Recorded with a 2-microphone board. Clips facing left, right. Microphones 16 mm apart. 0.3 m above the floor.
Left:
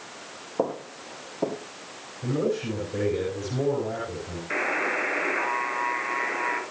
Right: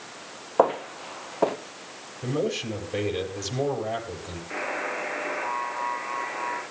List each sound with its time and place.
0.6 s footsteps: 80° right, 1.4 m
2.2 s a man speaking: 40° right (ahead or behind), 8.5 m
4.5 s a buzzer: 35° left (ahead or behind), 4 m